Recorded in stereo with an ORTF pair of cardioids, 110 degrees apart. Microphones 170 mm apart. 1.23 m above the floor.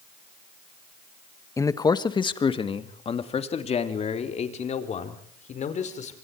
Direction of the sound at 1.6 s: 20° left.